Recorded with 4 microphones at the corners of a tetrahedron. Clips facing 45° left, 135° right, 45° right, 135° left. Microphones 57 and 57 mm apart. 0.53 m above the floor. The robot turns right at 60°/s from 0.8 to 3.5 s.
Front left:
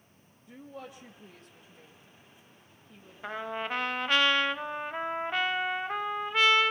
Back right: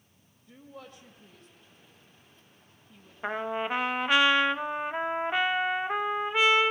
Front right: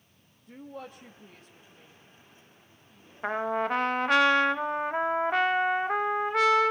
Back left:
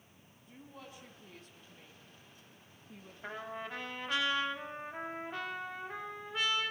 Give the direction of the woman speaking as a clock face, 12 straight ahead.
1 o'clock.